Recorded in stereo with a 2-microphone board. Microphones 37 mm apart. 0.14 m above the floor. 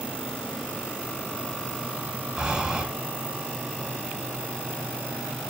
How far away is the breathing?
About 0.8 m.